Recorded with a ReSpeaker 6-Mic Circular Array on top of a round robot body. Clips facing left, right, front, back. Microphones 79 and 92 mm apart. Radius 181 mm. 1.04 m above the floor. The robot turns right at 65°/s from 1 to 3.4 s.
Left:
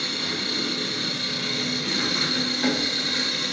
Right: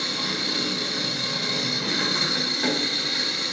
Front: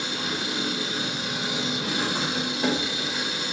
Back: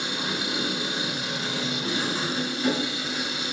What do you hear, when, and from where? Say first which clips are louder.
0.0 s an engine running: right 1 dB, even; 105° right, 1.3 m; by 3.5 s 50° left, 1.3 m